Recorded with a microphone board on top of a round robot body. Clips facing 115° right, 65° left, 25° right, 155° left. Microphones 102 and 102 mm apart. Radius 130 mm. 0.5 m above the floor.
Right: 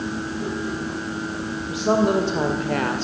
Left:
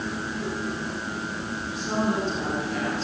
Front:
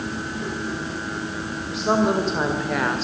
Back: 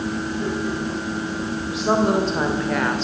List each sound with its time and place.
1.7 s a woman speaking: 115° right, 3.5 m; by 3.0 s 110° right, 2.5 m